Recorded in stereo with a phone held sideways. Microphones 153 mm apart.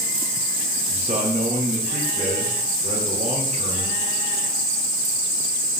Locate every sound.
0.9 s a man speaking: 55° right (ahead or behind), 4.5 m